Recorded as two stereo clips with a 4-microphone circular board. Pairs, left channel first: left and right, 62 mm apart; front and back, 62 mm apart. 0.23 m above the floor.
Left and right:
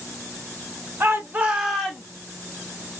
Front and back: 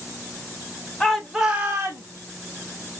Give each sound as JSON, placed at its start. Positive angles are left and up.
{"t": 1.0, "sound": "a shout", "azimuth_deg": -65, "distance_m": 1.2}